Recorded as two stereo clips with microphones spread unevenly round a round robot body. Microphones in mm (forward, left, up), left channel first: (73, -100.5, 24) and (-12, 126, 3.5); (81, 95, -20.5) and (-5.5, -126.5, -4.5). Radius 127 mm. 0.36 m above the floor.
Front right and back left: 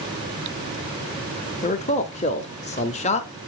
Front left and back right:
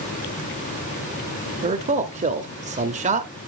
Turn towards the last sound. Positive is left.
turn(degrees=-100)